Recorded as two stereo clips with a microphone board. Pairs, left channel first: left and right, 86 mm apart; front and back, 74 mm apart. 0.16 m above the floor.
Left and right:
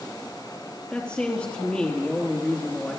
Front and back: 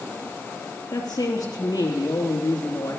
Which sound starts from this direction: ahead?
A woman speaking, at 0.9 s.